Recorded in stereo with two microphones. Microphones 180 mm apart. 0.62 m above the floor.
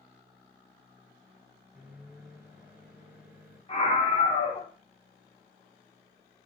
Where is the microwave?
10° right (ahead or behind), 3.5 m.